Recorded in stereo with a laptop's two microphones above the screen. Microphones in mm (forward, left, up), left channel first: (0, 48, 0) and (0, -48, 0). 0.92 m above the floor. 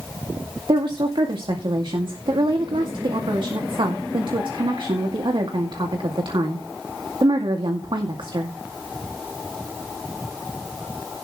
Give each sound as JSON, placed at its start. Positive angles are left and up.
{"t": 0.7, "sound": "a woman speaking", "side_deg": -60, "distance_m": 2.0}